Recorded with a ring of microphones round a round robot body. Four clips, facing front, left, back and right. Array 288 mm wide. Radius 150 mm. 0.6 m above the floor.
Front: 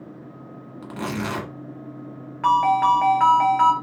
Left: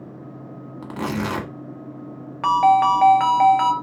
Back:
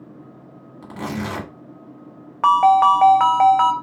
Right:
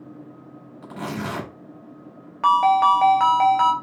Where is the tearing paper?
80° left, 1.6 m.